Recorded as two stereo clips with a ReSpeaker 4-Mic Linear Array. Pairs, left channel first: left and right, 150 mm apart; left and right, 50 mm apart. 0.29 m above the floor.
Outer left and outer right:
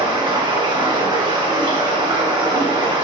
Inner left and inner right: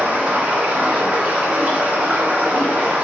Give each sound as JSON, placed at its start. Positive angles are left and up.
{"t": 0.0, "sound": "running water", "side_deg": -35, "distance_m": 1.7}